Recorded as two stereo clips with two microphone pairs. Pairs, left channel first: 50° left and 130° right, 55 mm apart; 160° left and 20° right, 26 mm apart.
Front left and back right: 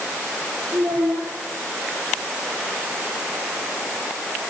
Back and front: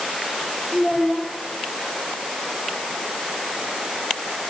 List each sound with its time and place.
0.7 s a child speaking: 165° right, 6.5 m